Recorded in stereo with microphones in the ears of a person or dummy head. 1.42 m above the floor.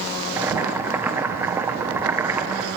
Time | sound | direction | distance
0.4 | boiling | 15° right (ahead or behind) | 1.1 m